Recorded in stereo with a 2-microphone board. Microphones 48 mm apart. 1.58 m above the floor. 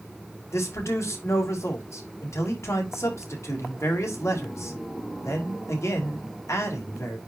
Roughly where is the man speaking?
Left.